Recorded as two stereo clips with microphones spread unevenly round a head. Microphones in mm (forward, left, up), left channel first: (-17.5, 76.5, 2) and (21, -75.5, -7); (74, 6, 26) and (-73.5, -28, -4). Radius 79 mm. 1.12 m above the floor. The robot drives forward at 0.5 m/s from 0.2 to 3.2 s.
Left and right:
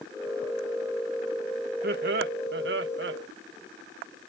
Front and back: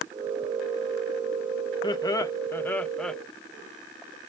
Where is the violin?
I don't hear a violin.